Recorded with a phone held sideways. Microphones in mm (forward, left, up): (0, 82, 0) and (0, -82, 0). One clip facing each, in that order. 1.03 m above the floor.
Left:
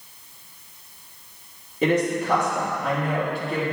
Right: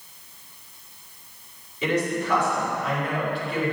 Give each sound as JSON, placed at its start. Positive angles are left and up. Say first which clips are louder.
{"t": 1.8, "sound": "a woman speaking", "louder": "left 3 dB", "side_deg": 45, "distance_m": 2.5}